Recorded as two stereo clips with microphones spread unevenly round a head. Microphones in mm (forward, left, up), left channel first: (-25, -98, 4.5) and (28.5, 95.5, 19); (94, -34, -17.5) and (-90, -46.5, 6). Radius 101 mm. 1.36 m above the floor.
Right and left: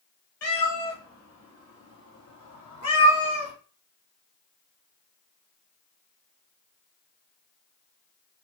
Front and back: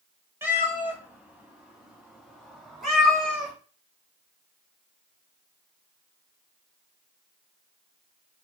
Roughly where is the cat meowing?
Right.